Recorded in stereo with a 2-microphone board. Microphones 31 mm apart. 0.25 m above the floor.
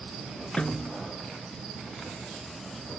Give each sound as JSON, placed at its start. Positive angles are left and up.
{"t": 0.6, "sound": "a snare drum", "side_deg": 40}